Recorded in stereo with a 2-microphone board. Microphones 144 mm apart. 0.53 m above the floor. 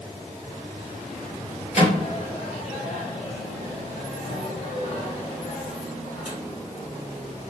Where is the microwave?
50° left (ahead or behind), 1.3 m.